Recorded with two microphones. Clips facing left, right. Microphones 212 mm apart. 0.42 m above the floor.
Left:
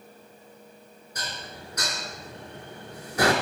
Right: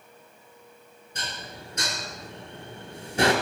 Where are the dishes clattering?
25° right (ahead or behind), 3.5 m.